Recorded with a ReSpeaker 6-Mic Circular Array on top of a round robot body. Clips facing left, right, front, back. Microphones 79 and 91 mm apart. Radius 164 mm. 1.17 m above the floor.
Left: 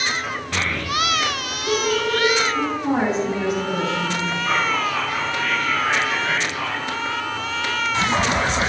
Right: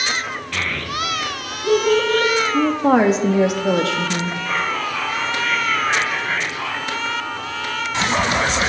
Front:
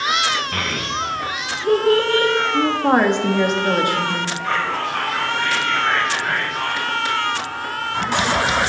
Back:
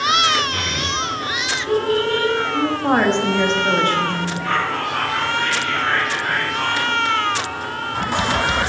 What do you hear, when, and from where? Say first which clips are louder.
0.5 s a child speaking: left 2 dB, even; 30° left, 0.5 m; by 2.3 s 45° right, 1.0 m
2.5 s a woman speaking: right 6 dB, front 2 dB; 80° right, 0.5 m
4.4 s whispering: left 3 dB, back 1 dB; 95° left, 2 m